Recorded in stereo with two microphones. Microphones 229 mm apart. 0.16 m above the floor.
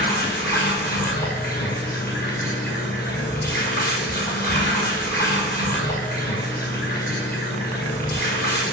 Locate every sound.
0.0 s running water: 45° left (ahead or behind), 1.7 m